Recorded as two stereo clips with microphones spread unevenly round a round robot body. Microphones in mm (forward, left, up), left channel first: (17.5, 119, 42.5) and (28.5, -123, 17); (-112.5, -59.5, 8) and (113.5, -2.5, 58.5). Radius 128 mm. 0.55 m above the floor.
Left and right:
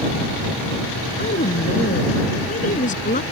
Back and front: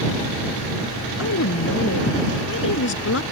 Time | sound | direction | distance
1.2 | a woman speaking | 155° left | ?